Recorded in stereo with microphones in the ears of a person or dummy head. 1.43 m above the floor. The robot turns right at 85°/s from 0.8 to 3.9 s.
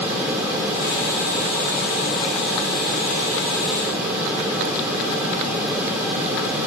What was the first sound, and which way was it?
Only background noise.